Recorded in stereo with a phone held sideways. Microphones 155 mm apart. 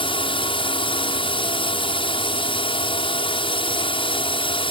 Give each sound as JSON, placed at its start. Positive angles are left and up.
{"t": 0.0, "sound": "a drone", "side_deg": 35}